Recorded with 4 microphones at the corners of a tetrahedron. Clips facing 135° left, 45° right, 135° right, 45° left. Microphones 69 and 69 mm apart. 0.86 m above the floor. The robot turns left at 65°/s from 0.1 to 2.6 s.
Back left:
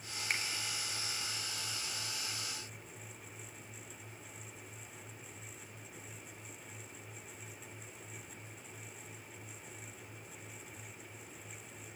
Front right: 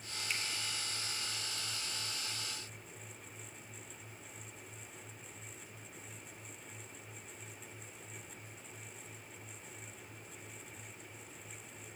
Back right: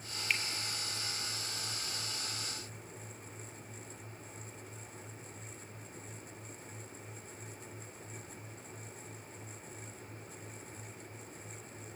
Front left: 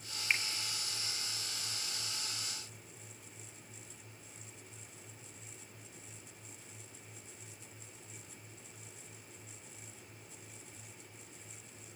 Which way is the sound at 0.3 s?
110° left.